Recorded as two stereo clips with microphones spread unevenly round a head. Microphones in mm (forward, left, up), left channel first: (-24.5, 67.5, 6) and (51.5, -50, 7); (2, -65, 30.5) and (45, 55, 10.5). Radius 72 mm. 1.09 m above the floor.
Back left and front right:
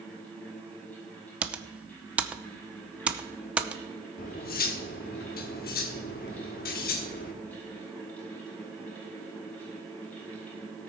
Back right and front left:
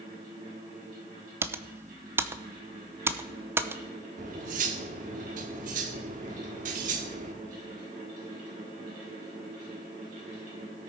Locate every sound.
0.0 s a fan: 45° left, 6.5 m
1.4 s typing on a keyboard: 20° left, 0.8 m
4.2 s cutlery clinking: 110° left, 1.1 m